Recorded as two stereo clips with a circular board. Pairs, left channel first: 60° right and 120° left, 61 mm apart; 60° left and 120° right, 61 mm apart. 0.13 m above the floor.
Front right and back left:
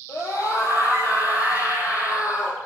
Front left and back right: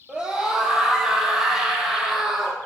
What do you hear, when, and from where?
0.1 s a scream: 45° right, 4 m; by 2.6 s 35° right, 4.5 m